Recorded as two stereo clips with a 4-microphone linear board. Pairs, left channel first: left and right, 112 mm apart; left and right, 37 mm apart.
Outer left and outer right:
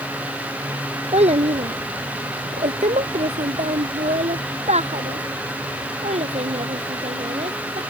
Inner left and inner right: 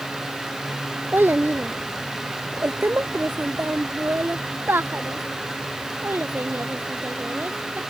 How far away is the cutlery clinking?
No cutlery clinking in this recording.